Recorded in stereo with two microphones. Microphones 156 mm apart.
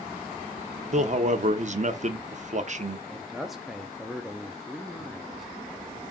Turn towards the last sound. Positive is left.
turn(degrees=0)  # may be behind; listen again after turning